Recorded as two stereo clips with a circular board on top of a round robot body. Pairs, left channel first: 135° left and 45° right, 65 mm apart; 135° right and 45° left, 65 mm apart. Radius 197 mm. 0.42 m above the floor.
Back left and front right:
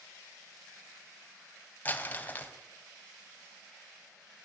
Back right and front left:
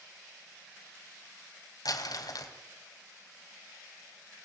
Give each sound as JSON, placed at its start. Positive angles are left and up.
{"t": 1.9, "sound": "crumpling", "azimuth_deg": -160, "distance_m": 1.9}